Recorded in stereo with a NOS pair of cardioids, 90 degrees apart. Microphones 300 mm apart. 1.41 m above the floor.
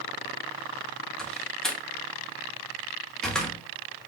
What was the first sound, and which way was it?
A door slam, straight ahead.